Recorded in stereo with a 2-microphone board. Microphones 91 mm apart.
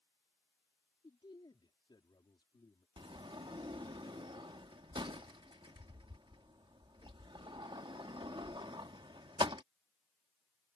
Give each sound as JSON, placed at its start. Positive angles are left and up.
{"t": 1.0, "sound": "a man speaking", "side_deg": 60}
{"t": 3.0, "sound": "a sliding door", "side_deg": -65}